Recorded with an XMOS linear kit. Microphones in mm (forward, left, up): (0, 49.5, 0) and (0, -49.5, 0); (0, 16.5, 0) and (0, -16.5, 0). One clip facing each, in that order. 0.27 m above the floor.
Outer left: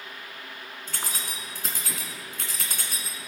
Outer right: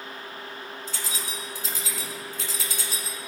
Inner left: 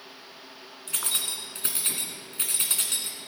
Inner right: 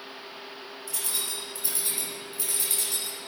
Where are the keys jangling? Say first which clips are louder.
Outer left 2 dB, inner left 3 dB; 55° left (ahead or behind), 2 m.